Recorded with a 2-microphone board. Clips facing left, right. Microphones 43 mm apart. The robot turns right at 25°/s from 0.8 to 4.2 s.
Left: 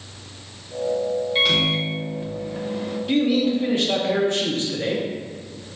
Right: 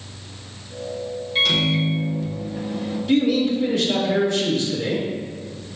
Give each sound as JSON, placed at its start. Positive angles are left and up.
{"t": 1.4, "sound": "a microwave", "azimuth_deg": 10, "distance_m": 0.6}
{"t": 3.1, "sound": "a man speaking", "side_deg": 10, "distance_m": 1.1}